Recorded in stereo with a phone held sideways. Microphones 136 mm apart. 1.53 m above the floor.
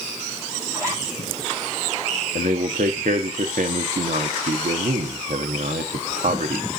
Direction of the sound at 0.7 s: 20° right (ahead or behind).